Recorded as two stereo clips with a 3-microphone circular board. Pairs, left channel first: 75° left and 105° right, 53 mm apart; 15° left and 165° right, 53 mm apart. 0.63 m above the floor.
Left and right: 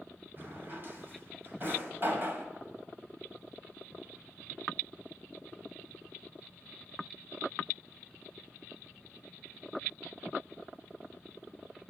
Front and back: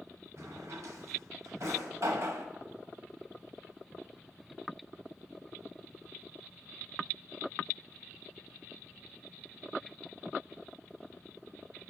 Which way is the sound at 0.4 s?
155° right.